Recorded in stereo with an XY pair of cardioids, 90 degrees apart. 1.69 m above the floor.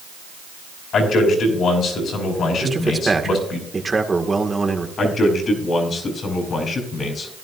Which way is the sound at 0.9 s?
70° left.